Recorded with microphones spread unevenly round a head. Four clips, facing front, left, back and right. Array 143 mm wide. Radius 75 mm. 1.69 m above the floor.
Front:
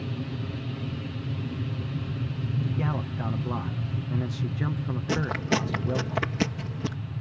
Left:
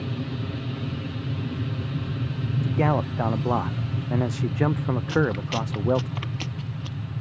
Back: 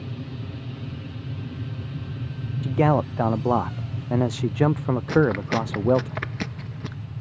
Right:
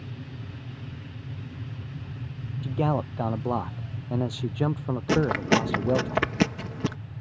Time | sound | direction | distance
0.0 | an aircraft | 75° left | ?
2.6 | a man speaking | 175° left | ?
5.1 | chewing | 70° right | ?